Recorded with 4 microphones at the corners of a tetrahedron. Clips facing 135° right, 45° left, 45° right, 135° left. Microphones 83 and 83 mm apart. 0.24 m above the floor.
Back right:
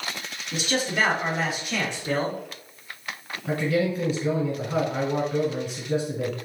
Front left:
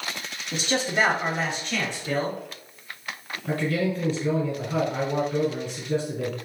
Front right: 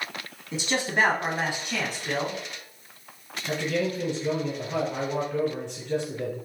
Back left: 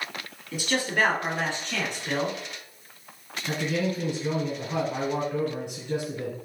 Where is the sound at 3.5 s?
175° right, 1.7 m.